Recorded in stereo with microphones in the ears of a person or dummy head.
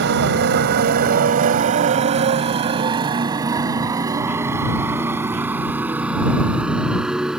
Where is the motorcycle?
65° right (ahead or behind); by 7.4 s 5° right (ahead or behind).